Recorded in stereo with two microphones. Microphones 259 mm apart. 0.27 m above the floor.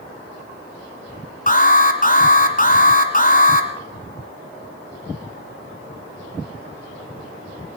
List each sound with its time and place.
1.5 s an alarm: 35° left (ahead or behind), 1.6 m